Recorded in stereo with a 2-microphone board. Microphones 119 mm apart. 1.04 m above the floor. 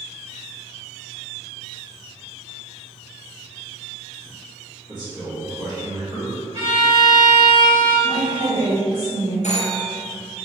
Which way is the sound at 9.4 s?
70° left (ahead or behind).